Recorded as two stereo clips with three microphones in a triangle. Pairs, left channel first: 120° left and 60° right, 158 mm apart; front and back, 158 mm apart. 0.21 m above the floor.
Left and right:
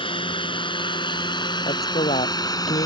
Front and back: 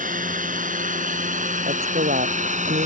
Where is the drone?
170° left; by 2.9 s straight behind.